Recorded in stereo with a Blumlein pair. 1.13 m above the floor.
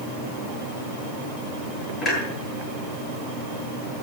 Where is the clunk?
20° left, 8.5 m.